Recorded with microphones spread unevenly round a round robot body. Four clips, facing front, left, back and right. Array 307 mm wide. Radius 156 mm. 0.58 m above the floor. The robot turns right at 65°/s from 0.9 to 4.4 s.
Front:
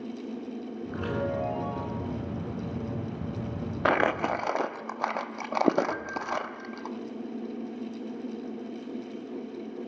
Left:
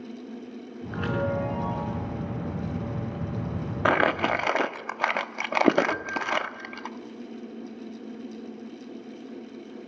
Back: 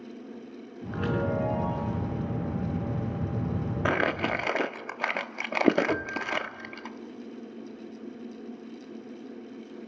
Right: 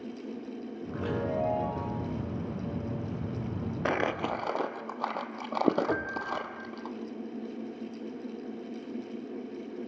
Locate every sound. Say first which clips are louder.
0.9 s a chime: left 4 dB, back 2 dB; 125° left, 7 m; by 2.0 s 160° right, 7 m
3.9 s crumpling: left 7 dB, front 3 dB; 65° left, 1.2 m; by 6.9 s 105° left, 1.2 m
5.9 s a piano: left 3 dB, back 2 dB; 160° right, 1.1 m